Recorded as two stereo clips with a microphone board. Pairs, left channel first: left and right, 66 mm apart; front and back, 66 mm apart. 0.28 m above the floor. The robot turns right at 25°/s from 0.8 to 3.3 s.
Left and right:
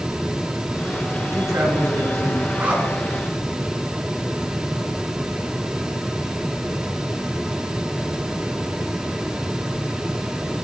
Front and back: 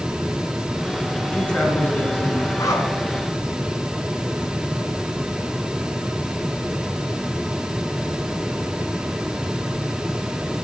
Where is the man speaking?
75° right, 2.5 m; by 2.5 s 45° right, 2.5 m.